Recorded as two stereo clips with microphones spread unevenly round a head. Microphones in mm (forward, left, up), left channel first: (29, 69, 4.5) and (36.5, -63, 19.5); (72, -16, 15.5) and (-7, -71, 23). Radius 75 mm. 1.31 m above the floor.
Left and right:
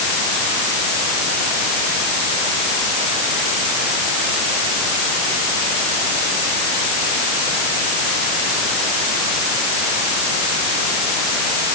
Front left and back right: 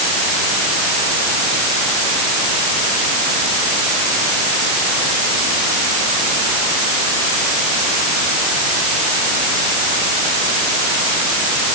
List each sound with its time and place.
Only background noise.